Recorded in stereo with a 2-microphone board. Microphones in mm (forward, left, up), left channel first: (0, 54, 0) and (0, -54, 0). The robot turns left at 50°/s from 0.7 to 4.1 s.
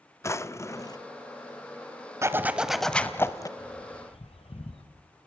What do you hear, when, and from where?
0.2 s a drawer: 25° left (ahead or behind), 0.6 m; by 1.0 s 40° left (ahead or behind), 0.6 m
2.2 s a zipper: 150° right, 1.0 m; by 3.5 s 145° left, 1.0 m
3.6 s a bird: 40° left (ahead or behind), 1.8 m; by 4.9 s 65° left (ahead or behind), 1.8 m